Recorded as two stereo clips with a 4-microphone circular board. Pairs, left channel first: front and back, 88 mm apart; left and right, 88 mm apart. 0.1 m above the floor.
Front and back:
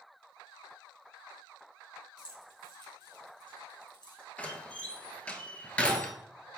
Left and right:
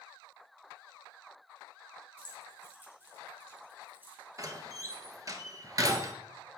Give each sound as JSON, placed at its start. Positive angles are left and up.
{"t": 2.2, "sound": "keys jangling", "azimuth_deg": -25, "distance_m": 3.0}
{"t": 4.4, "sound": "a door slam", "azimuth_deg": -70, "distance_m": 1.0}